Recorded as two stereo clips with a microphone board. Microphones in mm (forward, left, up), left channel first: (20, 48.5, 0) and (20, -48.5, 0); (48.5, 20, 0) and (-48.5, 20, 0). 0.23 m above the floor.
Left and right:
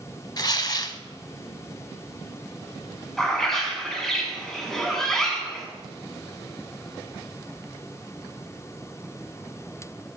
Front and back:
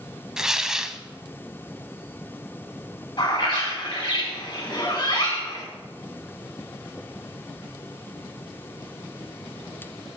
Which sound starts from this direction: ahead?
A bird, at 3.2 s.